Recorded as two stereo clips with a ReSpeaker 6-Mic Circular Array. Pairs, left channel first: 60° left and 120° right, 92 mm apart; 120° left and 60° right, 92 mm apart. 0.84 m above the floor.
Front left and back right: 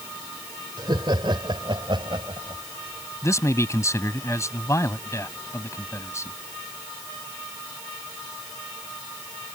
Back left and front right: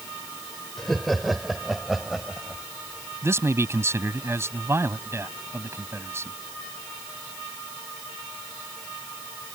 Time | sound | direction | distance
0.8 | laughter | 155° right | ?
3.2 | a man speaking | straight ahead | ?